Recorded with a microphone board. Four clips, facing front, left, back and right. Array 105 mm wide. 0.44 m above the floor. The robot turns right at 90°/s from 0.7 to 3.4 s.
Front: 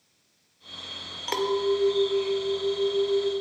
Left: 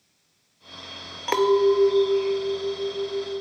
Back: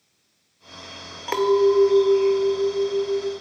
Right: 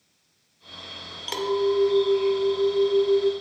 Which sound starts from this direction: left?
A clink, at 1.3 s.